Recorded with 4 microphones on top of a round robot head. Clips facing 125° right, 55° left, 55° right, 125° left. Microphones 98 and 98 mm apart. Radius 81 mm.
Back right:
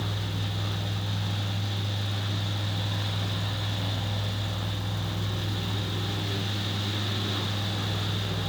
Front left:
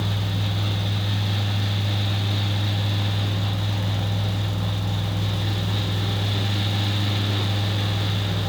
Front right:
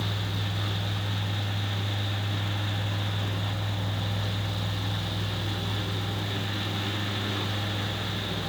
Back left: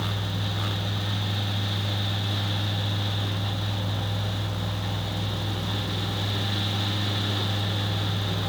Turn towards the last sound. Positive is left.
No sound to turn to.